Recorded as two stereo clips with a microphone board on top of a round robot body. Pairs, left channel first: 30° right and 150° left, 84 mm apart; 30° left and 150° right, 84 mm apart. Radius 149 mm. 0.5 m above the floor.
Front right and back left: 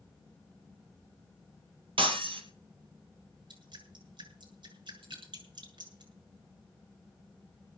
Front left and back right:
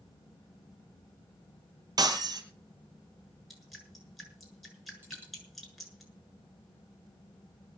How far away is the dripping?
About 7.5 m.